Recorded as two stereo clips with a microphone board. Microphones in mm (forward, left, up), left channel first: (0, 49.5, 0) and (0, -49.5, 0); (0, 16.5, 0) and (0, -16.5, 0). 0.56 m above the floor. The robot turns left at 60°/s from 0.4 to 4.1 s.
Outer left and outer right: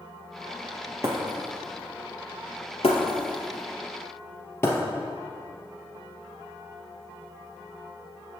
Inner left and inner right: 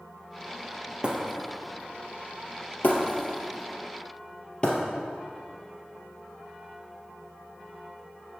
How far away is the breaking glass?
About 2.5 m.